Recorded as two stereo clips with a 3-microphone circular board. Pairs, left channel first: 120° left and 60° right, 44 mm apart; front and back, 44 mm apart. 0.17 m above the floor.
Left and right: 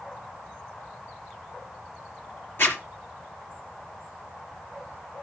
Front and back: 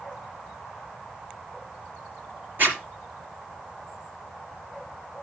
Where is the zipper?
145° left, 3 m.